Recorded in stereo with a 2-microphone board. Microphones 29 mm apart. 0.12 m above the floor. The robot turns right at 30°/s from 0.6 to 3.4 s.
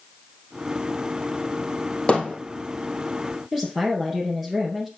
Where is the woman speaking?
10° right (ahead or behind), 2.5 m.